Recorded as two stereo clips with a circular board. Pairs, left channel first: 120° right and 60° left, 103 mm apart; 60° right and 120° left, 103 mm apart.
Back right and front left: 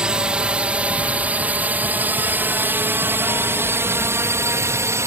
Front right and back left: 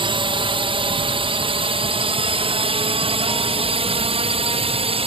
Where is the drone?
140° left; by 5.1 s 120° left.